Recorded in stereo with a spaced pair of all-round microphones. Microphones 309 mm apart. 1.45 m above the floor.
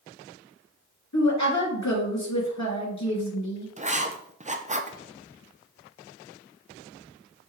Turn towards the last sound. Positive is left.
turn(degrees=-25)  # may be behind; listen again after turning